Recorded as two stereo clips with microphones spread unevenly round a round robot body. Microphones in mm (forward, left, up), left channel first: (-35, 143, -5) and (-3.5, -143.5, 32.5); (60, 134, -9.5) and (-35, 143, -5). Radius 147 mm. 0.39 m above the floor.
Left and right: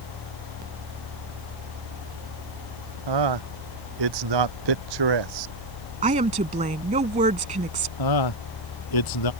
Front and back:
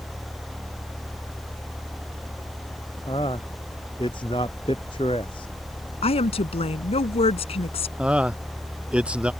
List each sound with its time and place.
3.1 s a man speaking: 80° right
6.0 s a woman speaking: 15° right
8.0 s a man speaking: 95° left